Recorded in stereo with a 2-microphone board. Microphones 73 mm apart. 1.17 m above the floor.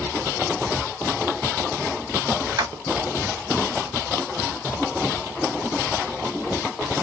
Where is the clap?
90° right, 3 m.